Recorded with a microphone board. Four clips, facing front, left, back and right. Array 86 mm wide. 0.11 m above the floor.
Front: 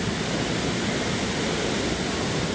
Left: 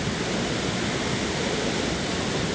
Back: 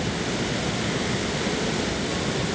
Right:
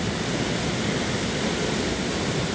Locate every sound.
Only background noise.